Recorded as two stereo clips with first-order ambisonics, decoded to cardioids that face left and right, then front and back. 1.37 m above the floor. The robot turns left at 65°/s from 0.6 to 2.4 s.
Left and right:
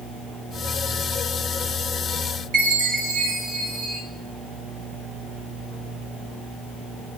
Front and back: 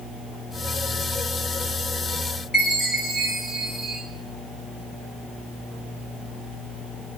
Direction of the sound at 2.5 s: 70° right.